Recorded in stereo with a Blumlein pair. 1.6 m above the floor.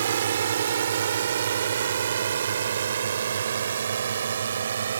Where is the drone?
65° right; by 5.0 s 70° right.